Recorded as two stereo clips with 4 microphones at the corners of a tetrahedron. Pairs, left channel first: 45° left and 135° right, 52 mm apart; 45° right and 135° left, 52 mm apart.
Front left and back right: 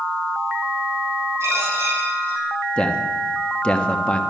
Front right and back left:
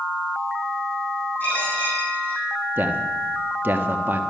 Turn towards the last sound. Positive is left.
turn(degrees=105)